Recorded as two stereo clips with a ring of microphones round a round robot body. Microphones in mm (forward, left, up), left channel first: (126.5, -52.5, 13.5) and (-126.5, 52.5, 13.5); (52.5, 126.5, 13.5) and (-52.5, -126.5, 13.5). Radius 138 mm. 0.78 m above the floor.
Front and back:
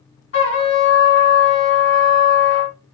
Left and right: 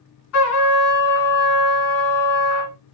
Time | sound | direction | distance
0.3 | a trumpet | 25° left | 2.5 m